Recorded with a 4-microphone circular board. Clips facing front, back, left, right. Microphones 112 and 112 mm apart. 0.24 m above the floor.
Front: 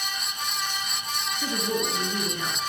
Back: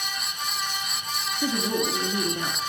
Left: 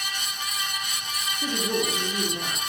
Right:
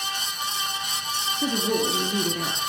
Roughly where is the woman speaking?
Right.